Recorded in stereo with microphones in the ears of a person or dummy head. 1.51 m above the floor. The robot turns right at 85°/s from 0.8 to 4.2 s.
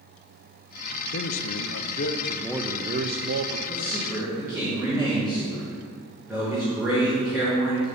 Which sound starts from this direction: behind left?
A man speaking, at 3.7 s.